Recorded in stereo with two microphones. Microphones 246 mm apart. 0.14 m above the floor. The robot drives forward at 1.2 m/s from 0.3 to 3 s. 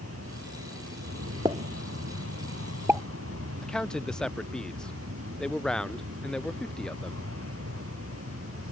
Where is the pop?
20° right (ahead or behind); by 3.0 s 10° right (ahead or behind).